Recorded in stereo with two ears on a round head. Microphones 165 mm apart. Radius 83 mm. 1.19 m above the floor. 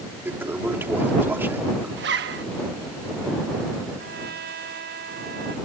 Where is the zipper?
60° right (ahead or behind).